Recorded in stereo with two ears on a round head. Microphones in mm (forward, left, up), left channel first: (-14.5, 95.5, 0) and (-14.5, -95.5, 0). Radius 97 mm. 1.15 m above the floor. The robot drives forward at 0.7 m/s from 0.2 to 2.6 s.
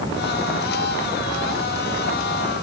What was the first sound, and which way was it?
Only background noise.